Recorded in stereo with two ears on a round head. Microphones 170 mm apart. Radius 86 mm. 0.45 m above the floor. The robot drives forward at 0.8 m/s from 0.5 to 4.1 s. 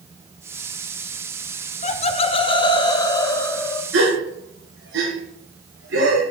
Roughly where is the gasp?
Right.